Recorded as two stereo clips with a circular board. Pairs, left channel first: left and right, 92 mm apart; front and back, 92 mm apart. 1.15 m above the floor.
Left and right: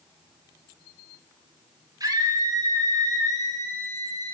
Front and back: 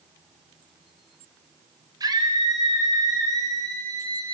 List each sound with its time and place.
2.0 s a scream: 140° right, 6.5 m